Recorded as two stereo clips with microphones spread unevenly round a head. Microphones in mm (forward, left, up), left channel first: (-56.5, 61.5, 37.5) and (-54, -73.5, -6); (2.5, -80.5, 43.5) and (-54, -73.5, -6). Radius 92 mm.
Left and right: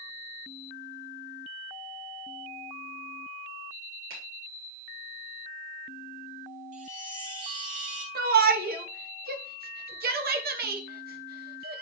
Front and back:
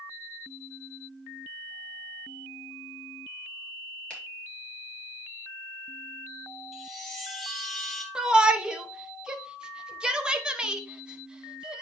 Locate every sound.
4.1 s a finger snap: 75° right, 4 m
6.7 s a chime: 45° right, 1.3 m
8.2 s a shout: 100° right, 1.1 m